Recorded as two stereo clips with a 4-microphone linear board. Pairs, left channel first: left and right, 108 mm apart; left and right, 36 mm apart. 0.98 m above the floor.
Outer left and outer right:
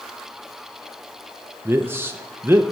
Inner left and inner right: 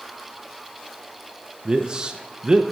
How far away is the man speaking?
About 0.5 m.